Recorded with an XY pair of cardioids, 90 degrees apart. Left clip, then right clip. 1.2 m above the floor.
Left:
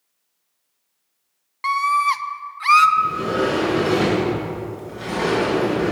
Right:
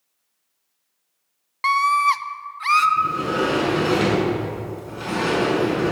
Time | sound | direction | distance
1.6 | a scream | 35° right | 0.7 m
3.0 | a sliding door | 65° right | 6.5 m